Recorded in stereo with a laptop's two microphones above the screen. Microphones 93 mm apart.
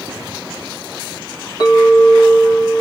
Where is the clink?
50° left (ahead or behind), 1.0 m.